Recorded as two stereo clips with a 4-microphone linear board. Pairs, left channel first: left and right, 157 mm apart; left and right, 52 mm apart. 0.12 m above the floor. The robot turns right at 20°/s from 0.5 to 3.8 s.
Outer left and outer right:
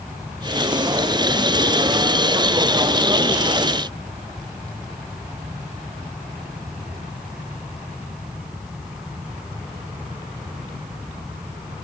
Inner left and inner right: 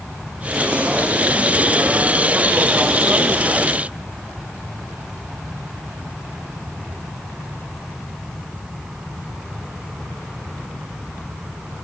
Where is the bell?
No bell in this recording.